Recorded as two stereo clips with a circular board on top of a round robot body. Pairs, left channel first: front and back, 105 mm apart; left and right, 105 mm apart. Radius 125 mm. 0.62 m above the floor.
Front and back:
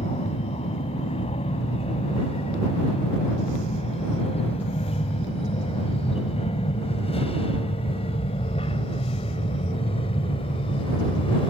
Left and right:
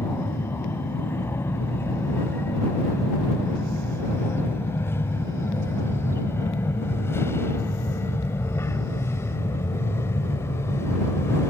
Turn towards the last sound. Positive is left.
turn(degrees=25)